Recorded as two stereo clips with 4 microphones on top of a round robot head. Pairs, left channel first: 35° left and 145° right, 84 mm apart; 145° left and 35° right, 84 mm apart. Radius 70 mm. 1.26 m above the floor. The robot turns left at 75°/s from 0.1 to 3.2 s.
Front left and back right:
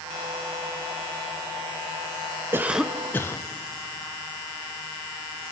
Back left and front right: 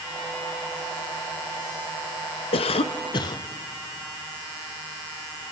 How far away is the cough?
About 0.5 m.